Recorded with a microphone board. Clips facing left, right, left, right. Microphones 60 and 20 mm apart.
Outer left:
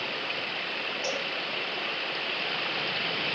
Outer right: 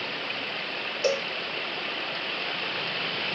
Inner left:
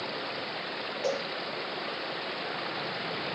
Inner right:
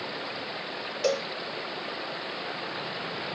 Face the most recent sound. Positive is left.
turn(degrees=-65)  # may be behind; listen again after turning